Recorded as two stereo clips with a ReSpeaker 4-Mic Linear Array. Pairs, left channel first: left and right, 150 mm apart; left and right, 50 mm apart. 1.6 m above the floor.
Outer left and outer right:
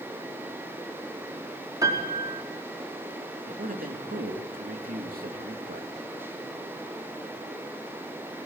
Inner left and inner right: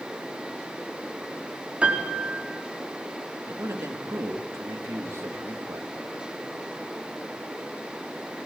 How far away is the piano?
About 5 m.